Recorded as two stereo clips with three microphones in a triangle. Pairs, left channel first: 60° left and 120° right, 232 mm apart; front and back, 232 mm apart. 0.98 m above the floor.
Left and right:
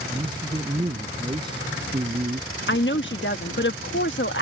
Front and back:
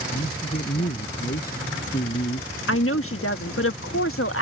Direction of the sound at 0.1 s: 45° right.